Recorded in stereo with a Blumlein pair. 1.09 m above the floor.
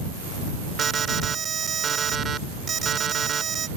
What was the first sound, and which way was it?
An alarm, 20° right.